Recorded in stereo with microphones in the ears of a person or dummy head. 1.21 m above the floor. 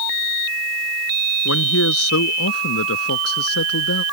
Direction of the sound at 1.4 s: 90° left.